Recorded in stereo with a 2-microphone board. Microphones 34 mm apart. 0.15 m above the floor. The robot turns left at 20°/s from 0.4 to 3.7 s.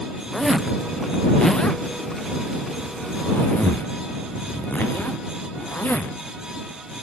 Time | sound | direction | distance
0.3 | a zipper | centre (ahead or behind) | ?